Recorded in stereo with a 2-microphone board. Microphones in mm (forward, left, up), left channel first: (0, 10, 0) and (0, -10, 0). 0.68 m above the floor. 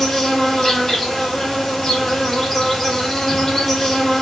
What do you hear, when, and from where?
0.0 s an insect: 25° left (ahead or behind), 1.7 m